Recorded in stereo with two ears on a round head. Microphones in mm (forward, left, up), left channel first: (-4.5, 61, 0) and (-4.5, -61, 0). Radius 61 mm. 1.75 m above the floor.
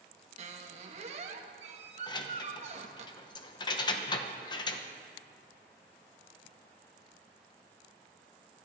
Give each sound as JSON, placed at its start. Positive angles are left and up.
{"t": 0.4, "sound": "a squeak", "side_deg": -50, "distance_m": 1.4}
{"t": 2.1, "sound": "keys jangling", "side_deg": 30, "distance_m": 0.9}